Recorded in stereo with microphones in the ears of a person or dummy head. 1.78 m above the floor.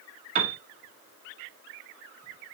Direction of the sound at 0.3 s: 45° right (ahead or behind).